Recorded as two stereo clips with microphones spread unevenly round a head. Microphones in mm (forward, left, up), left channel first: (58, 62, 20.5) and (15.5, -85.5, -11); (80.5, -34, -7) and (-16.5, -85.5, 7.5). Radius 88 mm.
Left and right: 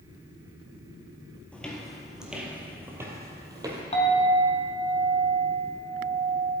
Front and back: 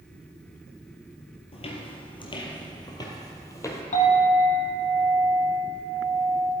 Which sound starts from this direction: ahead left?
A clink, at 3.9 s.